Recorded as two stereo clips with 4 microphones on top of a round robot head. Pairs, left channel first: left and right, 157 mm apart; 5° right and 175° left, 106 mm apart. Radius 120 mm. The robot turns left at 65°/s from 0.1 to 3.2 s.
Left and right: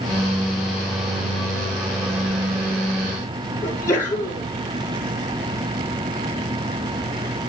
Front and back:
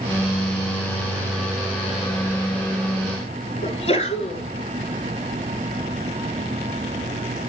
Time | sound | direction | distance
3.6 | a sneeze | 15° left | 5.5 m